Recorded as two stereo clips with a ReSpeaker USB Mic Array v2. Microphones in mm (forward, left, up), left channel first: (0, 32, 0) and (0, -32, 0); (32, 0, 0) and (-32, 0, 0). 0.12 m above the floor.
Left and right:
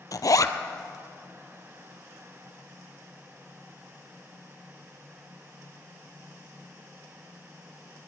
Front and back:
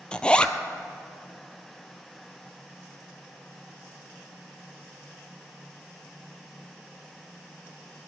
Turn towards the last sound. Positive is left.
turn(degrees=75)